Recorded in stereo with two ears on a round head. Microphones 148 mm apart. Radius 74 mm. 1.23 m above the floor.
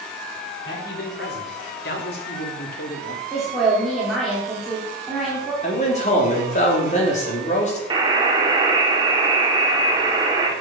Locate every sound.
0.7 s a man speaking: 75° left (ahead or behind), 4.5 m; by 3.2 s 55° left (ahead or behind), 2 m
3.3 s a woman speaking: centre (ahead or behind), 4 m
5.6 s a man speaking: 40° left (ahead or behind), 3.5 m
7.9 s a buzzer: 25° right (ahead or behind), 2 m